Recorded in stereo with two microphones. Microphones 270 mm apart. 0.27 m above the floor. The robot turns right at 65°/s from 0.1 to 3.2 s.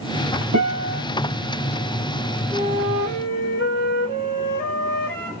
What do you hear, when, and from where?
0.5 s a guitar: 110° right, 3 m; by 1.0 s 75° right, 3 m
2.5 s a flute: straight ahead, 2 m; by 5.3 s 45° left, 2 m